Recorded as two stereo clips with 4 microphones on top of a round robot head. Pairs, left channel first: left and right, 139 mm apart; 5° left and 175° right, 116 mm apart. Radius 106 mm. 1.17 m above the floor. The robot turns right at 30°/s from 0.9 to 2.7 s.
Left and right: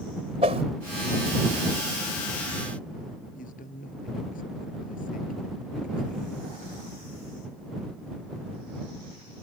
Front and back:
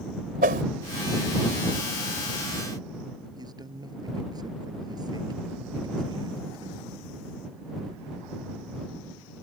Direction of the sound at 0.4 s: 150° right.